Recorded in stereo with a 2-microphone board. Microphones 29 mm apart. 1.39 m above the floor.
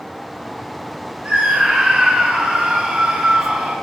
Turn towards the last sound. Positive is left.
turn(degrees=-50)  # may be behind; listen again after turning